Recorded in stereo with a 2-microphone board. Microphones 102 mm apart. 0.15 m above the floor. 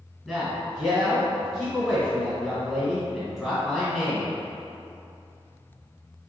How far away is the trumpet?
No trumpet in this recording.